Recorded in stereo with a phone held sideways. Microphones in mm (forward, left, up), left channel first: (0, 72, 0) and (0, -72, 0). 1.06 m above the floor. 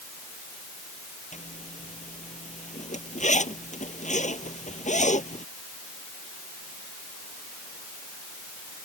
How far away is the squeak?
No squeak in this recording.